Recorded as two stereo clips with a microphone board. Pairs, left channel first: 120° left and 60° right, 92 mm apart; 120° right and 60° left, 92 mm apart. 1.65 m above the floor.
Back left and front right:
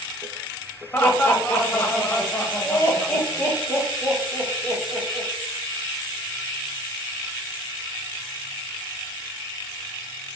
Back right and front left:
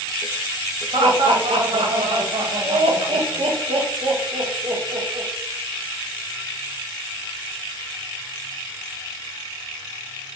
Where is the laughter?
50° left, 0.7 m.